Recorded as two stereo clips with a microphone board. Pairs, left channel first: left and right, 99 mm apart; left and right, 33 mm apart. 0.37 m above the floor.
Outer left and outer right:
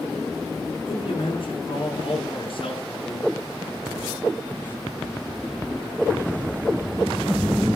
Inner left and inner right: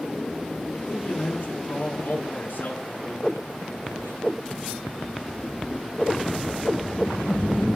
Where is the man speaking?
60° left (ahead or behind), 5 m.